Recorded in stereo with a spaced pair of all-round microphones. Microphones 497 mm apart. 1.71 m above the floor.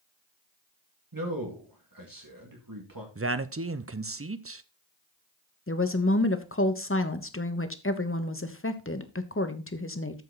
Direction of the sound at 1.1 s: 40° right (ahead or behind).